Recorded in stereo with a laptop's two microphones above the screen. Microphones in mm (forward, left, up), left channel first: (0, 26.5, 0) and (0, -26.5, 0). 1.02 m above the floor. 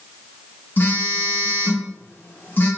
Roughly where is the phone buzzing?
Left.